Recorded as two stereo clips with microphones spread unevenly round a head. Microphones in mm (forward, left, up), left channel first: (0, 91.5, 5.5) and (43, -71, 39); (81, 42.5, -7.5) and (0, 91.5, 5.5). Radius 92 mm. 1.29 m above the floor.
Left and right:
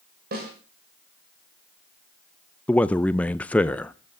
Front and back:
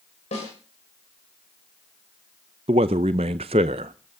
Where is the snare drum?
40° right, 6 m.